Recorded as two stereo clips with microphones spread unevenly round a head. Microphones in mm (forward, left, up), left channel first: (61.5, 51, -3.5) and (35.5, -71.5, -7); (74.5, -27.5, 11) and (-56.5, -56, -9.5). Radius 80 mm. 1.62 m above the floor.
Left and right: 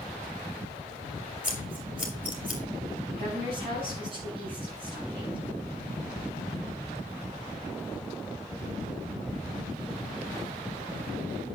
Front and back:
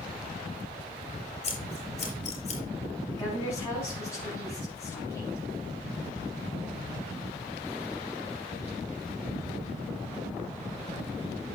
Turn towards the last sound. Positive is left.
turn(degrees=-60)